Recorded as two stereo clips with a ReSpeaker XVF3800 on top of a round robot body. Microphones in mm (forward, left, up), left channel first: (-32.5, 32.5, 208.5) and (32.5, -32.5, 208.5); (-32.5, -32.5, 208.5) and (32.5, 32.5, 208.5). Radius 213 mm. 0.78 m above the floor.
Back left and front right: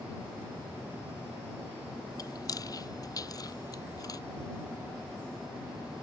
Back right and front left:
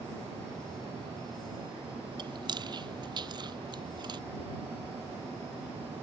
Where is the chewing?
85° left.